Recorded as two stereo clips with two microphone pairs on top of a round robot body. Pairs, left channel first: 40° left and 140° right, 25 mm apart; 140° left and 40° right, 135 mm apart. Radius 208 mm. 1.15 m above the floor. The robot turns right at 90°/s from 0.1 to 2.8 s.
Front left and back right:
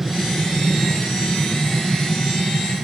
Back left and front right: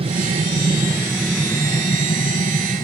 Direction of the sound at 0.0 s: 55° right.